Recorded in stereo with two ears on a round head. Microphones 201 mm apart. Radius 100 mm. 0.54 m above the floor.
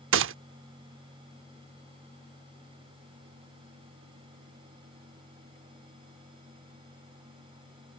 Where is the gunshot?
60° right (ahead or behind).